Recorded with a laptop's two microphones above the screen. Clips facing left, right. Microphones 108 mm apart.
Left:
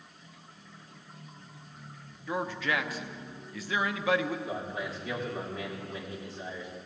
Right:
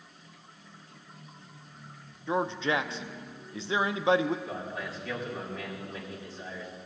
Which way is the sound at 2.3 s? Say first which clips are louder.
Right 3 dB; 25° right (ahead or behind).